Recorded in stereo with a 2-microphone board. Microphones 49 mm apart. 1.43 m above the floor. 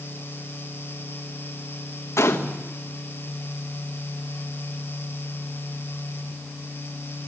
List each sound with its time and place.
2.2 s a gunshot: 75° left (ahead or behind), 1.8 m